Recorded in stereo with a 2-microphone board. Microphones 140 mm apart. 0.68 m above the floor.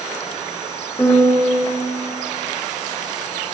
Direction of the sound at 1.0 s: 20° left (ahead or behind).